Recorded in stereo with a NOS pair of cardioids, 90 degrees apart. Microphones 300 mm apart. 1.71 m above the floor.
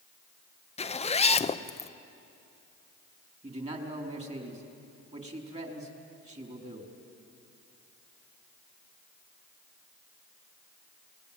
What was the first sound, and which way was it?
A zipper, 20° left.